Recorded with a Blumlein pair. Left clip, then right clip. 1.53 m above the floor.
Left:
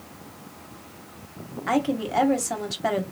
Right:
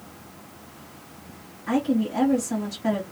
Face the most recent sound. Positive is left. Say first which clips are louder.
# left 1 dB
turn(degrees=30)